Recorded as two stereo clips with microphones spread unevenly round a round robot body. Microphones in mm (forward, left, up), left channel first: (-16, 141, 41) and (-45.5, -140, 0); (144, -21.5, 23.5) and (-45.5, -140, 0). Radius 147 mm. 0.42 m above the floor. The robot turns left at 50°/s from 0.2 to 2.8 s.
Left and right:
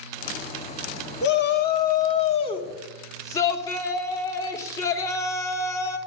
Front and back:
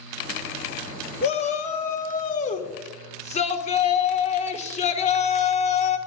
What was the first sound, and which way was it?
A shout, 80° left.